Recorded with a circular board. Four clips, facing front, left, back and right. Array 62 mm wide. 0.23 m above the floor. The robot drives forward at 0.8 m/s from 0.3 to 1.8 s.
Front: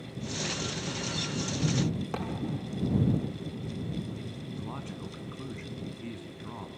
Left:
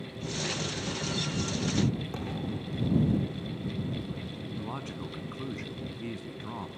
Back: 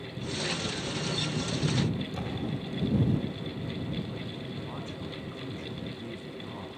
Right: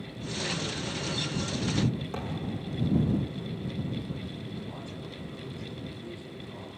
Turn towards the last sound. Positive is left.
turn(degrees=85)